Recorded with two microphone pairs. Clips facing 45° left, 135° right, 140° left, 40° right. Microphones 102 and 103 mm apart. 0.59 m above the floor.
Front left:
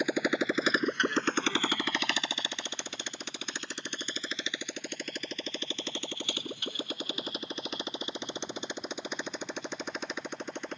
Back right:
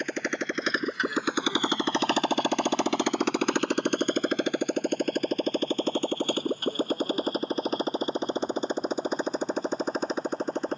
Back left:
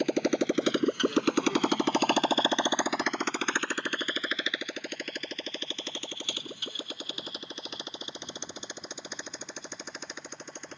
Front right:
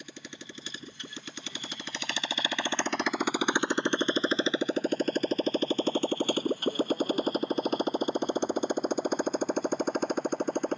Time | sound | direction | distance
0.0 | a motorcycle | 125° left | ?